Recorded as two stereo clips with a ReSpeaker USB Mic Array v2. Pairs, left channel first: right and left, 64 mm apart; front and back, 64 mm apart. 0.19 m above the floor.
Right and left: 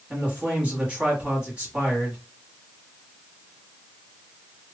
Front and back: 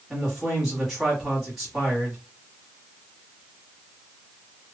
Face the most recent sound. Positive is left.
turn(degrees=105)